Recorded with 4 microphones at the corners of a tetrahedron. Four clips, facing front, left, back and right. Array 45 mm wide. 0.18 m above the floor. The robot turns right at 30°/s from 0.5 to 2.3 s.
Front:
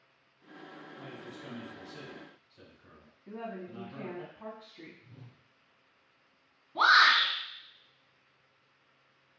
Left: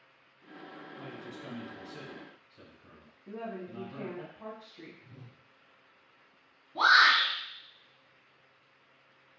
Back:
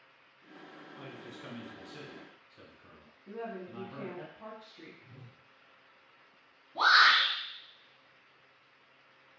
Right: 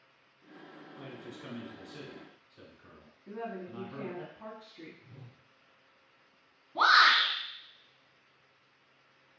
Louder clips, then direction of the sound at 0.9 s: Even, even; 170° right.